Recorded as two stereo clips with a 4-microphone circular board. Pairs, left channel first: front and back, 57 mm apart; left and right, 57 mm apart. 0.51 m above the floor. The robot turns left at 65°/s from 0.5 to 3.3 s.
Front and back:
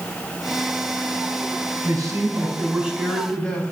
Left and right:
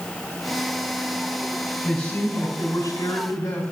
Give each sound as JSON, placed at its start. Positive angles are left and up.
{"t": 1.8, "sound": "a man speaking", "azimuth_deg": 170, "distance_m": 3.5}